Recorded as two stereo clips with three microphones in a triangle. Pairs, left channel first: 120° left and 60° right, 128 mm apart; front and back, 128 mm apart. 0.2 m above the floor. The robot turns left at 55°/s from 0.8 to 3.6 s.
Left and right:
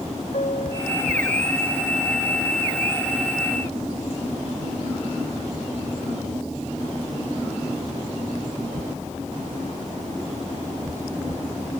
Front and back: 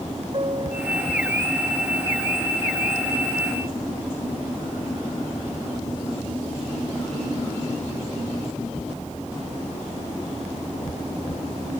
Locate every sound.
0.3 s a piano: 140° left; by 1.0 s 125° left